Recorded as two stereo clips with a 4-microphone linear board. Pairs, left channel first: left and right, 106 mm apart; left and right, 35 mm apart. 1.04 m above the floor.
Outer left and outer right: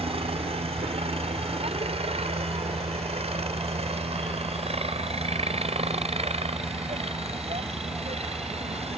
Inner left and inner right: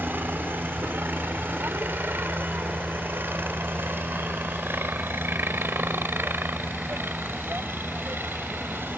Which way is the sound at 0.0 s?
70° right (ahead or behind).